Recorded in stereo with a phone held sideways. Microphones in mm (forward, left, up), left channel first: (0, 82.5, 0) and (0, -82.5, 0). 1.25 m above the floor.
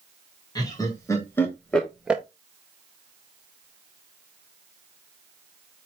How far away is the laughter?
About 1.4 m.